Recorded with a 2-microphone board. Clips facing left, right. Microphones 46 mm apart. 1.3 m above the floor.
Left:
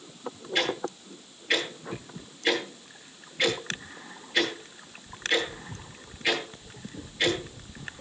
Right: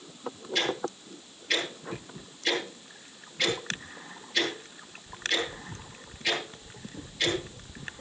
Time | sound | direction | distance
0.6 | ticking | 30° left (ahead or behind) | 9.5 m